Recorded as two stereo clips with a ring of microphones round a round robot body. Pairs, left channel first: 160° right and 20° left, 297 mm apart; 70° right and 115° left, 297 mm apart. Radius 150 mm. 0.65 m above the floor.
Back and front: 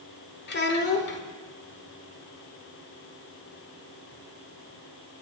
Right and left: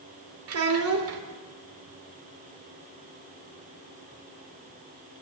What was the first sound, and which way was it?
A child speaking, 150° left.